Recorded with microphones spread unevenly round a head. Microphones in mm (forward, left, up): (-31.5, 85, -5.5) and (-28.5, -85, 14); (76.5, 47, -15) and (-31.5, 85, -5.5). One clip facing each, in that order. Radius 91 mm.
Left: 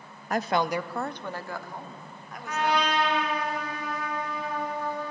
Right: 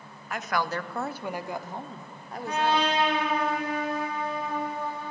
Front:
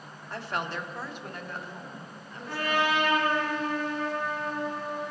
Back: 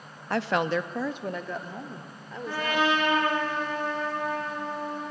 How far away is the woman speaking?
About 0.9 m.